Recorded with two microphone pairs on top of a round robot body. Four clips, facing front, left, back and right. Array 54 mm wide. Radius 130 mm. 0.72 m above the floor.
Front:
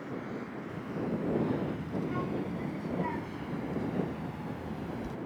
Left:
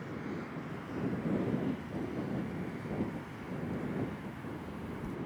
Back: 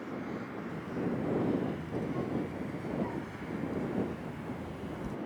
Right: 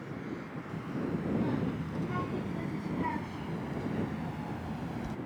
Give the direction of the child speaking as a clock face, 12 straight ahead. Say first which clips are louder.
Right 3 dB, even; 2 o'clock.